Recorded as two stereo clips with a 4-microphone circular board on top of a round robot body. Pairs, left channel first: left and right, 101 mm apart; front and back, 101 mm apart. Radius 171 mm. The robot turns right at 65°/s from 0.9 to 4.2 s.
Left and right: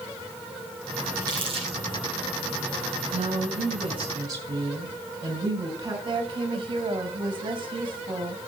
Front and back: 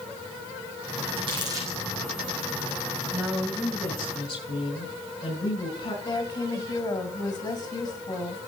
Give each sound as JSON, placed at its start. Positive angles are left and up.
{"t": 1.2, "sound": "crumpling", "azimuth_deg": -150, "distance_m": 5.5}
{"t": 3.1, "sound": "a woman speaking", "azimuth_deg": -105, "distance_m": 5.5}
{"t": 6.0, "sound": "a woman speaking", "azimuth_deg": -45, "distance_m": 3.5}